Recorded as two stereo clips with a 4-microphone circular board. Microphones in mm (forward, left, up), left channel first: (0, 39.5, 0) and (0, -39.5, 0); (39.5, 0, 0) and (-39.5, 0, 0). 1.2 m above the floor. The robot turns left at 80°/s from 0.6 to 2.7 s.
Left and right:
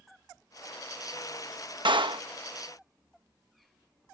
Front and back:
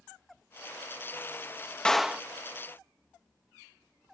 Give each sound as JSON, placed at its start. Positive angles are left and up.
{"t": 1.9, "sound": "a clap", "azimuth_deg": -80}